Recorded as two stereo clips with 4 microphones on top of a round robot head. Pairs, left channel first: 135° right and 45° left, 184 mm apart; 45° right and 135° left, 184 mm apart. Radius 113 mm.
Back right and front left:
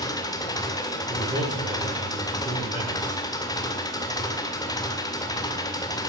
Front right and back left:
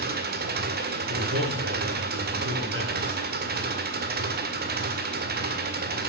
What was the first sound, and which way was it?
An engine running, 155° left.